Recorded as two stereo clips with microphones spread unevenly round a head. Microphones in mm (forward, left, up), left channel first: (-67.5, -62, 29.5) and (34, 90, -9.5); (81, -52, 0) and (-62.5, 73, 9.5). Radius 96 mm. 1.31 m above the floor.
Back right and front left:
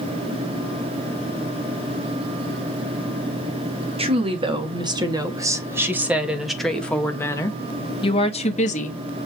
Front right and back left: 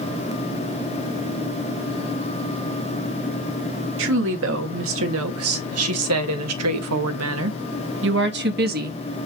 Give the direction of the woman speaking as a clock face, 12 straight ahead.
8 o'clock.